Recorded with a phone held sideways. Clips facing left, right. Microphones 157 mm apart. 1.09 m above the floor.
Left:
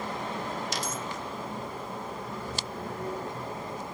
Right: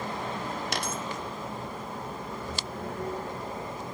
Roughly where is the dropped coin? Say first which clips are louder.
Right 1 dB; right.